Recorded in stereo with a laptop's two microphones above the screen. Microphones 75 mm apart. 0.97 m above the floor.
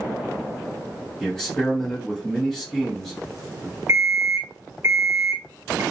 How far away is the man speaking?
About 1.4 m.